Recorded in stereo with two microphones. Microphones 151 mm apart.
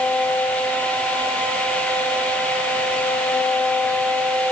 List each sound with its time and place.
Only background noise.